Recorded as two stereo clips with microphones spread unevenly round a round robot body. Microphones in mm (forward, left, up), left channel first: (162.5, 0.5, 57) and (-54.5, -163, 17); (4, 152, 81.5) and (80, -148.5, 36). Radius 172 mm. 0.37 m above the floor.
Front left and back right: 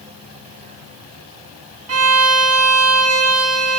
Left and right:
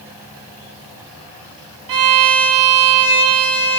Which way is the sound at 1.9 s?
105° right.